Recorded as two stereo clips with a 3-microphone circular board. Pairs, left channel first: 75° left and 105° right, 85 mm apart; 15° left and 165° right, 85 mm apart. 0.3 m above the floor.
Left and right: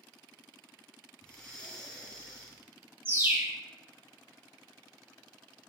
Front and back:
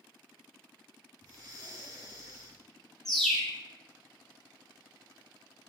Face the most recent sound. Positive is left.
turn(degrees=-70)